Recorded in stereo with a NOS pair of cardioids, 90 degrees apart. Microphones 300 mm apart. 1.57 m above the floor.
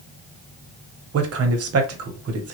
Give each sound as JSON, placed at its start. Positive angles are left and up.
{"t": 1.1, "sound": "a man speaking", "azimuth_deg": -55, "distance_m": 1.0}